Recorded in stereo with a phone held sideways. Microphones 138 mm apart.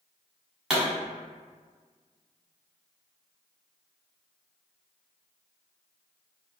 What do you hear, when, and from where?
0.7 s a pop: 5° right (ahead or behind), 1.3 m